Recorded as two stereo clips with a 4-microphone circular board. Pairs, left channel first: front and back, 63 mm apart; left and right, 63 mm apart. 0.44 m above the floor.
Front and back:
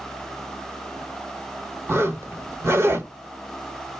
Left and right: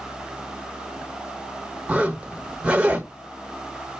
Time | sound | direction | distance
1.9 | a zipper | 155° right | 0.8 m